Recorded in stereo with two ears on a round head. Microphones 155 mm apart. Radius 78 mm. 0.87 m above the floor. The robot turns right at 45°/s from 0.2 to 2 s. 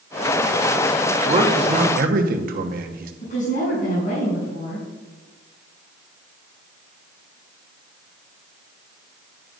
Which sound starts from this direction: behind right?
A man speaking, at 1.2 s.